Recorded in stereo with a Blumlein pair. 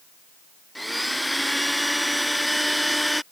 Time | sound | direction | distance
0.8 | a blender | straight ahead | ?